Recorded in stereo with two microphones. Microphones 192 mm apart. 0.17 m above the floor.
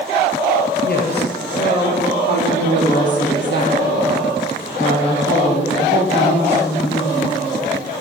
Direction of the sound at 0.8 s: 60° left (ahead or behind).